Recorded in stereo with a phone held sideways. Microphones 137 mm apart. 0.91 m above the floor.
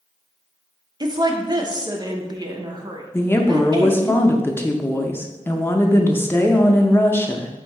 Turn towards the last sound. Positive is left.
turn(degrees=15)  # may be behind; listen again after turning